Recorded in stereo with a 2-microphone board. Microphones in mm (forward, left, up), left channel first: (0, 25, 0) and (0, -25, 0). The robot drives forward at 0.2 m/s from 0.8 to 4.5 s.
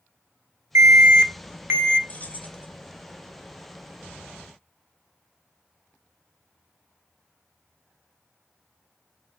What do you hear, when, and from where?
0.8 s an alarm: 65° right (ahead or behind), 0.6 m; by 2.0 s 50° right (ahead or behind), 0.7 m
2.1 s keys jangling: 35° left (ahead or behind), 0.5 m; by 2.7 s 30° left (ahead or behind), 0.5 m